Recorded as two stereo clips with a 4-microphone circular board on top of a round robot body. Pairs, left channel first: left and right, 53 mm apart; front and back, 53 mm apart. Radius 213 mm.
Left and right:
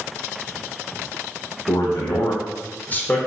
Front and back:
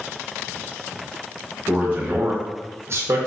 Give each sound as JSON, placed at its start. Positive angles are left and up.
{"t": 1.7, "sound": "a man speaking", "azimuth_deg": 110, "distance_m": 1.1}